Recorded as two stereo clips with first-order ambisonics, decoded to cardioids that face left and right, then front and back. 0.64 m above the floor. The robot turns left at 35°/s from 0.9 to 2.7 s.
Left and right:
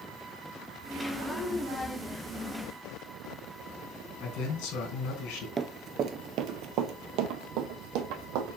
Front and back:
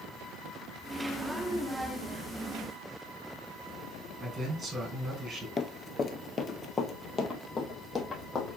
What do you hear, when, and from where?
4.2 s a man speaking: 105° left, 3 m
5.6 s running footsteps: 45° right, 0.6 m; by 8.6 s 70° right, 2 m